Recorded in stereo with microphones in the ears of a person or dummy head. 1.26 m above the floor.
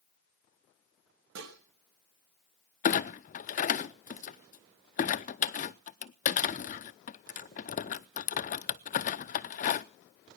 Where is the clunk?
35° left (ahead or behind), 0.6 m.